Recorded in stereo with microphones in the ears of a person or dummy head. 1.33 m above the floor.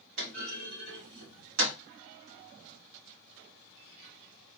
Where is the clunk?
75° right (ahead or behind), 1.9 m.